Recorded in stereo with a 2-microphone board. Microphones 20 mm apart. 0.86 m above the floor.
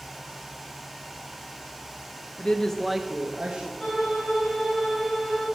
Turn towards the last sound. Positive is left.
turn(degrees=35)  # may be behind; listen again after turning